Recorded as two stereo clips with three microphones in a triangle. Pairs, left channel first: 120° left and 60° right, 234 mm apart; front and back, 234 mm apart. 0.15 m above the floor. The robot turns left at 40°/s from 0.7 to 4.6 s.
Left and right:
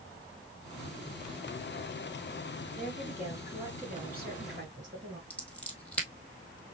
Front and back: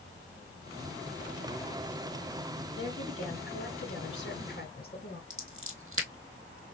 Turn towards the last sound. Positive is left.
turn(degrees=-155)